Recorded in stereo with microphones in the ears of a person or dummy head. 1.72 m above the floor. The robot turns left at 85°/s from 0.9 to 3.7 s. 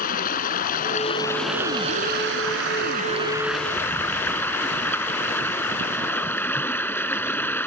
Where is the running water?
45° left; by 7.7 s 170° left.